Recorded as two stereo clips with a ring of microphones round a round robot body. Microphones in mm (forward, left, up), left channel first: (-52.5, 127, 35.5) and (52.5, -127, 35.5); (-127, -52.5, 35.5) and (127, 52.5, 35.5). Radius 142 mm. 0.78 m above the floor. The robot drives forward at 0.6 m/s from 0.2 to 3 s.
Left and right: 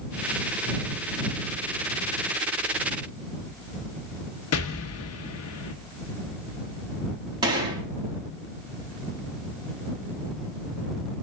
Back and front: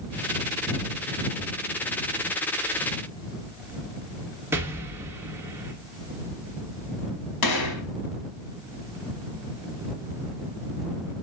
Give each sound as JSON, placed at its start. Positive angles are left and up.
{"t": 4.5, "sound": "an explosion", "azimuth_deg": 105, "distance_m": 0.9}
{"t": 7.4, "sound": "a gunshot", "azimuth_deg": -140, "distance_m": 1.1}